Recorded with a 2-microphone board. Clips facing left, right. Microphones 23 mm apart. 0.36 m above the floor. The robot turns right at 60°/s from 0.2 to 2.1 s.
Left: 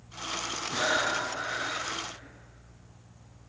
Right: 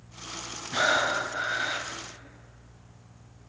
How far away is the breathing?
About 1.1 m.